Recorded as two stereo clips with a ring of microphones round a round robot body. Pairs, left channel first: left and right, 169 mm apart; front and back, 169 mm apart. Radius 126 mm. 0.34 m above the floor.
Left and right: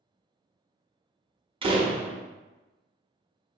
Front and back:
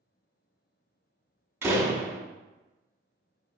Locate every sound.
1.6 s a door slam: 115° right, 0.6 m